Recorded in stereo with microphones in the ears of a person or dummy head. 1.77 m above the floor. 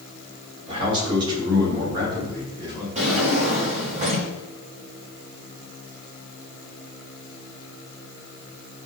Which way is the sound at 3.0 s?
35° right (ahead or behind).